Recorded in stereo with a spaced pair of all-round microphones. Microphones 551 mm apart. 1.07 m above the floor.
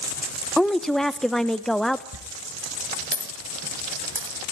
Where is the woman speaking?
Centre (ahead or behind), 0.9 m.